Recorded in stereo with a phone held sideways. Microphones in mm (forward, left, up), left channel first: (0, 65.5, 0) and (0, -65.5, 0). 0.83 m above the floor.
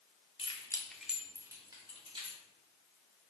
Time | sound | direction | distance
0.4 | keys jangling | 50° left (ahead or behind) | 1.1 m